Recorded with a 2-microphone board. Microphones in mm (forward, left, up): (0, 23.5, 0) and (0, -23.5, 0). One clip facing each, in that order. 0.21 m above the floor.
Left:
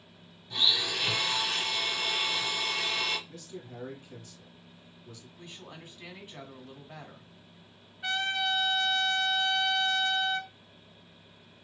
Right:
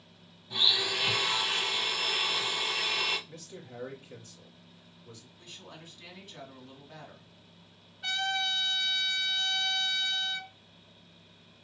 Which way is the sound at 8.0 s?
15° left (ahead or behind).